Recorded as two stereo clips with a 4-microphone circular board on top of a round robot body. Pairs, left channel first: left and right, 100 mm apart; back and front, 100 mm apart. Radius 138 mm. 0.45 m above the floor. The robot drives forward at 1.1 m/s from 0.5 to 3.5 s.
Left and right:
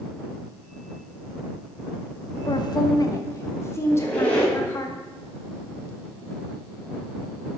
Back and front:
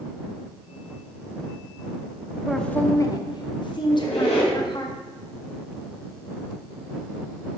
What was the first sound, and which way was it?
A woman speaking, 85° left.